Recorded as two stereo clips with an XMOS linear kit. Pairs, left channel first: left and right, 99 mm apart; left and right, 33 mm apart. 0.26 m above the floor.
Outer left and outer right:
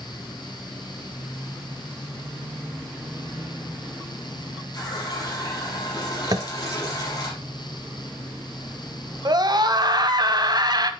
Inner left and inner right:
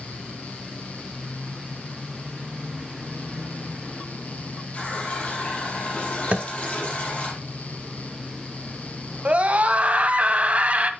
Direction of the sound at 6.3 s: 45° right (ahead or behind).